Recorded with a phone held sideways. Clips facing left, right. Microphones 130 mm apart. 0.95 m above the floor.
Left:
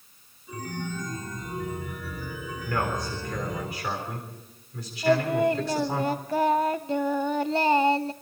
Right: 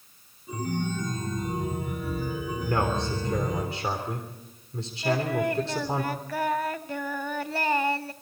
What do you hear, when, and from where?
0.5 s a chime: 25° right (ahead or behind), 5.5 m
2.6 s a man speaking: 30° right (ahead or behind), 3.5 m
5.0 s singing: 25° left (ahead or behind), 0.8 m